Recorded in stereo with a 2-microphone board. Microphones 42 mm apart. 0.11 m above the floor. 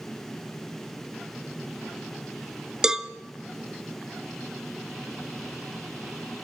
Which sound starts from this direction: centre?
A cowbell, at 2.8 s.